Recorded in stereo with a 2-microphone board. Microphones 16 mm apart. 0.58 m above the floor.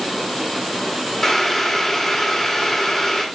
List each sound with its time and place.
1.2 s boiling: 15° left (ahead or behind), 1.3 m